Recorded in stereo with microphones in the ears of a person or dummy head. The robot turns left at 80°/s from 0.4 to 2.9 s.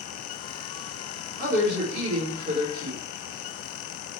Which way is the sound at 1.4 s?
55° right.